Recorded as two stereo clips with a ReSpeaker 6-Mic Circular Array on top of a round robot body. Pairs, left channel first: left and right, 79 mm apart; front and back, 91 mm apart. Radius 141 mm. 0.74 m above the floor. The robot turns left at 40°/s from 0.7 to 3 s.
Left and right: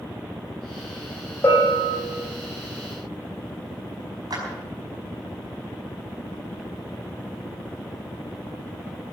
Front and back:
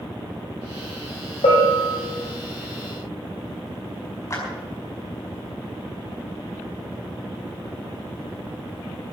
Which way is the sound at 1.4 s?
25° left.